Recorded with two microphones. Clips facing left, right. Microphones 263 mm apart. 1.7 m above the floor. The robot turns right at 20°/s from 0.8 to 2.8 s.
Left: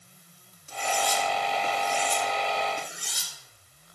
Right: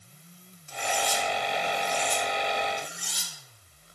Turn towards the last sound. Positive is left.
turn(degrees=65)  # may be behind; listen again after turning